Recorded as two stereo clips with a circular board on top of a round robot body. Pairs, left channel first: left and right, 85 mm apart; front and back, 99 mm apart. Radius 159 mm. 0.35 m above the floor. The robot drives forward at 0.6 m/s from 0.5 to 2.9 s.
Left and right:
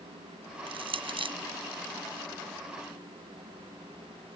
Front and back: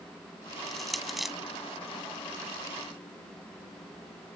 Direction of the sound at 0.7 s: 85° right.